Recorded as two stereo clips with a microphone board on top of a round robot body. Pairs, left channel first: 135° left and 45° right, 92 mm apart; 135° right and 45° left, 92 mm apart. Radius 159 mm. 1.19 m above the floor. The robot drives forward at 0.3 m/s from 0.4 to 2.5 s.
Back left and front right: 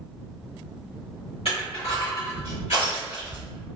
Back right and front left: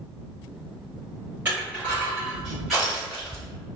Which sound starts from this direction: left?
Crushing, at 1.4 s.